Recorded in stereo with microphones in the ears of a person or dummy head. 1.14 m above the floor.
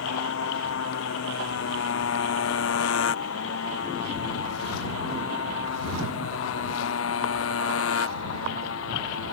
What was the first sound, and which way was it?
A motorcycle, 80° left.